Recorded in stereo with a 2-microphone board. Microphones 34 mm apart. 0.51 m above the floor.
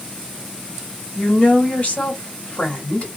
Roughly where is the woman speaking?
Left.